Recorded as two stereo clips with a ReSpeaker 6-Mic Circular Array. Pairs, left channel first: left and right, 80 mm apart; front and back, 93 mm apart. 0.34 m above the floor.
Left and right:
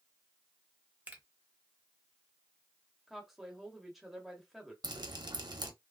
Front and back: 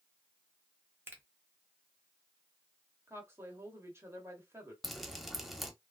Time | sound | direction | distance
1.1 | a finger snap | 140° right | 0.8 m
3.1 | a woman speaking | straight behind | 1.0 m
4.8 | dripping | 90° right | 0.6 m